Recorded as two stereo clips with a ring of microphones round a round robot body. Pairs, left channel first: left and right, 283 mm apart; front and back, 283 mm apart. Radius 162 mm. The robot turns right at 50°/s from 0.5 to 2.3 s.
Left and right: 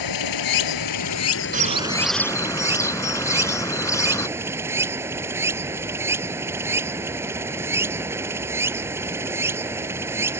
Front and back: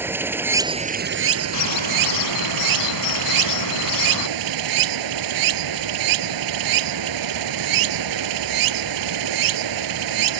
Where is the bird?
30° right; by 4.3 s 10° left.